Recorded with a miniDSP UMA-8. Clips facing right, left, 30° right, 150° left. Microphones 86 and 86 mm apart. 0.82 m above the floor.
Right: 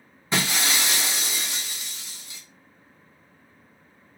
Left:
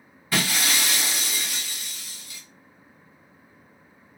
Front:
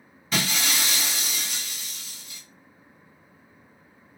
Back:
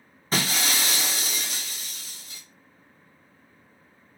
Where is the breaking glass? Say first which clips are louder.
Even, back 1 dB; 155° right, 1.2 m.